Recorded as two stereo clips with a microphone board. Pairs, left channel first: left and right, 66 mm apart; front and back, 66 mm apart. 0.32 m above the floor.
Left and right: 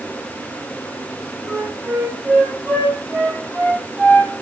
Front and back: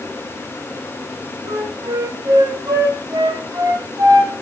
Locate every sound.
1.4 s a flute: 150° right, 5 m